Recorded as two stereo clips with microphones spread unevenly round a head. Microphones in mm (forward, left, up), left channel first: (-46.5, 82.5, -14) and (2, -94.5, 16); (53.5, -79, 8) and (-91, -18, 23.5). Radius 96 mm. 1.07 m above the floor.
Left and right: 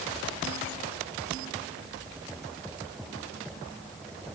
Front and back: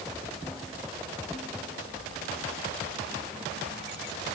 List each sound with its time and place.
Only background noise.